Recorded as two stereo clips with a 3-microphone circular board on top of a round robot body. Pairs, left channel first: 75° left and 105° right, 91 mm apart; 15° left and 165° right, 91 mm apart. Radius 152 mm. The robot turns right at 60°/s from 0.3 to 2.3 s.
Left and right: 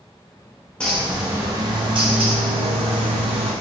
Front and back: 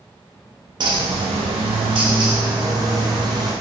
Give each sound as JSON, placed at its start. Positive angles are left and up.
{"t": 0.8, "sound": "a bird", "azimuth_deg": 155, "distance_m": 0.9}